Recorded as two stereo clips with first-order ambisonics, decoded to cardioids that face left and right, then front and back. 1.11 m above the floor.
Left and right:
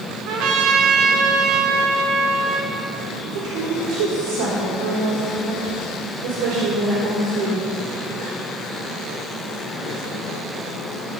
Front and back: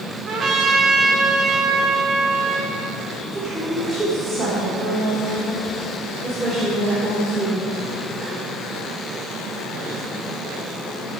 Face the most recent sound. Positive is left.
turn(degrees=-100)